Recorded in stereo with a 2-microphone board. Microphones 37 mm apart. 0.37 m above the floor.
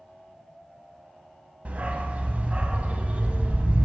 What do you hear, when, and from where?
1.6 s a dog barking: 40° right (ahead or behind), 0.6 m